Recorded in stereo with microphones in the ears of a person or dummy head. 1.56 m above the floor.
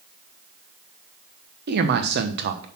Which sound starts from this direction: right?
A man speaking, at 1.7 s.